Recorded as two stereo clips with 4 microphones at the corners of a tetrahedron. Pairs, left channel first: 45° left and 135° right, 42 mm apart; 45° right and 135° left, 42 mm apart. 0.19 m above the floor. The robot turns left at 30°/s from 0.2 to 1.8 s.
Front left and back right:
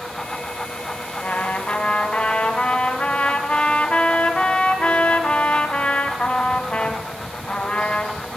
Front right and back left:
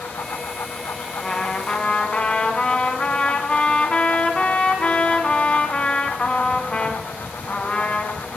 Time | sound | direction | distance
1.2 | a trumpet | 20° left | 1.7 m